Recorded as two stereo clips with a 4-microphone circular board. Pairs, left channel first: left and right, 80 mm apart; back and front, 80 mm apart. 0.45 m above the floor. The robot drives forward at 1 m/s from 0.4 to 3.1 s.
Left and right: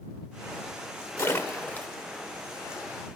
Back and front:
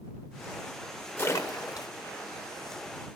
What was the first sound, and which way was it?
A splash, 130° left.